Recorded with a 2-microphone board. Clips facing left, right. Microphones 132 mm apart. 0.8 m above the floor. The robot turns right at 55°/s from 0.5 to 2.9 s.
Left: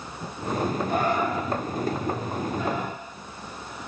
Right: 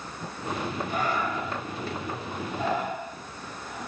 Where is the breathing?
50° left (ahead or behind), 2 m; by 3.9 s 45° right (ahead or behind), 2 m.